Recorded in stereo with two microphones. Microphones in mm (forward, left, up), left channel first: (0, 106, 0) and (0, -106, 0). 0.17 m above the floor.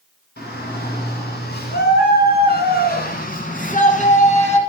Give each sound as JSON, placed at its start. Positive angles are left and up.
{"t": 0.4, "sound": "a shout", "side_deg": 50, "distance_m": 3.0}